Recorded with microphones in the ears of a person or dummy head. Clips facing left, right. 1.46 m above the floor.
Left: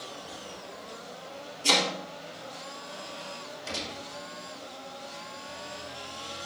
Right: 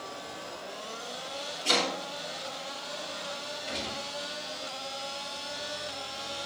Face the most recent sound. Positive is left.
turn(degrees=85)